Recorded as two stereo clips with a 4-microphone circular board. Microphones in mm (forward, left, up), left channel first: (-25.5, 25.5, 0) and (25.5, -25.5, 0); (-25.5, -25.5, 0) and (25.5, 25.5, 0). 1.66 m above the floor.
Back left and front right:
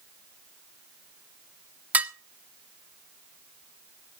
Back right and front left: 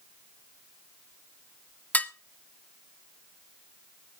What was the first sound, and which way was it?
Dishes clattering, 90° right.